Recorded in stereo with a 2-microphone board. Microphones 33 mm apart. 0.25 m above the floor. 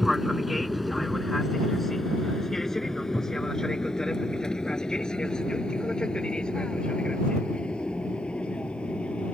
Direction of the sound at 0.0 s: 5° right (ahead or behind).